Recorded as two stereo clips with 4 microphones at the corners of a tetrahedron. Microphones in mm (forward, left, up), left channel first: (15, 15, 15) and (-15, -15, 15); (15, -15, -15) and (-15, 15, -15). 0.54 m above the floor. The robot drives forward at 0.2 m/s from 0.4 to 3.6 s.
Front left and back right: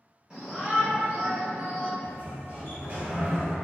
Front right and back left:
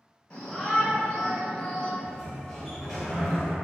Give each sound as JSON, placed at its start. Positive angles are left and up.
{"t": 0.3, "sound": "a shout", "azimuth_deg": -85, "distance_m": 1.2}
{"t": 2.0, "sound": "a sliding door", "azimuth_deg": -115, "distance_m": 1.7}